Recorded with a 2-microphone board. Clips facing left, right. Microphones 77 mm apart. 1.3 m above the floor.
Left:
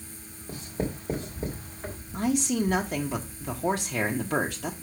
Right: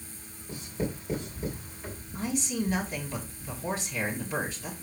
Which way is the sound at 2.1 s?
65° left (ahead or behind).